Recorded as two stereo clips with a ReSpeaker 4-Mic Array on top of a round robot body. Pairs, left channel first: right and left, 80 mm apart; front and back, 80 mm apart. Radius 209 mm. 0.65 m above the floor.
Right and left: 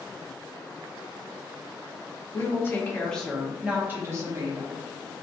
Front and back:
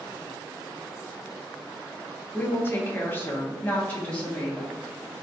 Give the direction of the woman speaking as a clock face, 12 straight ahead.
2 o'clock.